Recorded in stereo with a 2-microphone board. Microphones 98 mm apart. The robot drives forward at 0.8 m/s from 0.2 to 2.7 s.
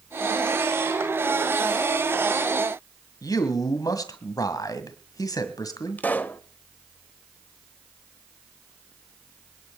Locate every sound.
3.2 s a man speaking: 40° left (ahead or behind), 1.8 m
6.0 s a pop: 20° left (ahead or behind), 0.8 m